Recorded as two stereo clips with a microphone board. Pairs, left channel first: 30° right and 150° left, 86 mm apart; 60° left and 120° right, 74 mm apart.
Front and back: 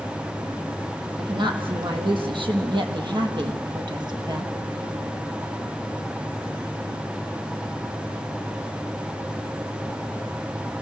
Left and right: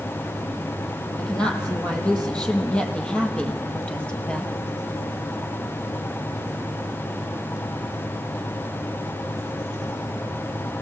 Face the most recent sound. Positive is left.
turn(degrees=135)